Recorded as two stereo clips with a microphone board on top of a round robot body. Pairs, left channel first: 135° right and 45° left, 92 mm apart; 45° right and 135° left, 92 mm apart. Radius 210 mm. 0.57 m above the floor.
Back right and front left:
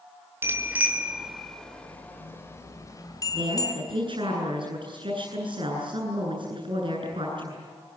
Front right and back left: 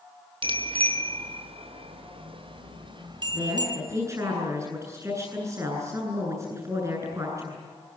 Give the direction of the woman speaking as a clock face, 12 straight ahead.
9 o'clock.